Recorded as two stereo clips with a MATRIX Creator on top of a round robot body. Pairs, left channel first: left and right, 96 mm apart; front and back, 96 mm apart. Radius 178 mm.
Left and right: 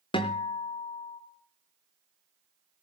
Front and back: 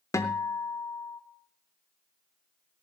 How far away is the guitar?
About 0.6 m.